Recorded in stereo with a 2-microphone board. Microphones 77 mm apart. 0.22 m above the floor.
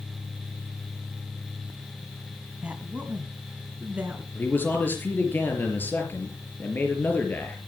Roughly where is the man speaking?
Left.